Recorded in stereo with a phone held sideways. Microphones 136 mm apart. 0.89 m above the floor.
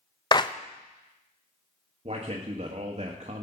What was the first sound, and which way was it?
A clap, 35° left (ahead or behind).